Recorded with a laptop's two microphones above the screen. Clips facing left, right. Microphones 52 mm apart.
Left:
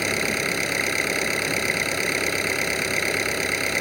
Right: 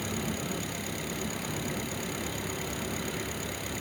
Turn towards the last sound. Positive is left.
turn(degrees=75)  # may be behind; listen again after turning